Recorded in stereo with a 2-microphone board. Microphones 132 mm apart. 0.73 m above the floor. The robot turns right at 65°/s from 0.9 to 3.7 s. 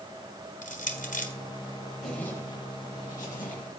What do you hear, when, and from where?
0.6 s crushing: 80° left, 1.4 m; by 1.3 s 70° left (ahead or behind), 1.4 m
2.0 s a zipper: 5° right (ahead or behind), 4 m; by 3.8 s 75° left (ahead or behind), 4 m